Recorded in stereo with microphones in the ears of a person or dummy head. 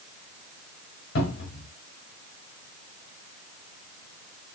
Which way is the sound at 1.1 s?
65° left (ahead or behind).